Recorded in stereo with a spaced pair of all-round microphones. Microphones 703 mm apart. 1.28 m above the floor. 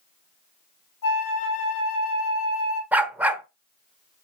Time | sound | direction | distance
1.0 | a flute | 85° left | 2.5 m
2.9 | a dog barking | centre (ahead or behind) | 1.3 m